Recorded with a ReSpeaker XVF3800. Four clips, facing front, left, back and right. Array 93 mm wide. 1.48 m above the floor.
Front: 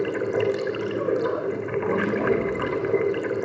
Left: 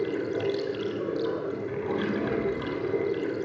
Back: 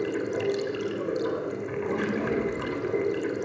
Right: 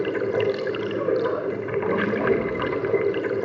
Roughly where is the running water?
Ahead right.